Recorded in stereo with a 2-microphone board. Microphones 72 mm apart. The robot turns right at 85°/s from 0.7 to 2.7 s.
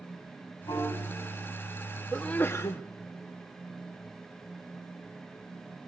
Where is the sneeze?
5° left, 0.6 m; by 2.8 s 55° left, 0.6 m.